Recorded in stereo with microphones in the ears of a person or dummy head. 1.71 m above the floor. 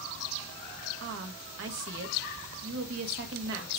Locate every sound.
1.0 s a woman speaking: 65° right (ahead or behind), 1.8 m